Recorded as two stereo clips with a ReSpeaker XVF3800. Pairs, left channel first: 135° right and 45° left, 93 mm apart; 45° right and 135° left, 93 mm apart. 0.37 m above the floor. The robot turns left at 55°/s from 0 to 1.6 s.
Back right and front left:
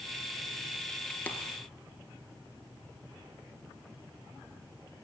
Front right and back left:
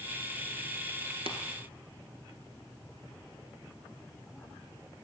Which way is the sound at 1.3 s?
150° left.